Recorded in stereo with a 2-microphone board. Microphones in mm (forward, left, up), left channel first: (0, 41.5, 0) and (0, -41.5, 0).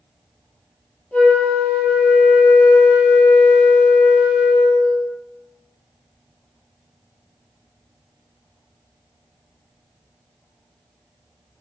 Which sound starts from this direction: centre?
A flute, at 1.1 s.